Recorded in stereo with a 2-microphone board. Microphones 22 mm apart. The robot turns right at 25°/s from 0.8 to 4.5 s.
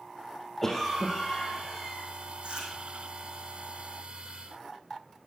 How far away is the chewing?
About 5 m.